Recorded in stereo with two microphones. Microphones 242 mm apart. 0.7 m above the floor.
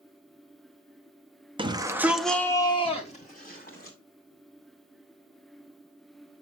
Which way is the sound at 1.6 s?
20° right (ahead or behind).